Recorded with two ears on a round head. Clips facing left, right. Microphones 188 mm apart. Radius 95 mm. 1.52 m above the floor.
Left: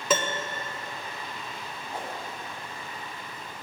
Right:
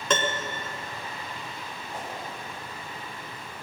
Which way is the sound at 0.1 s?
5° left (ahead or behind).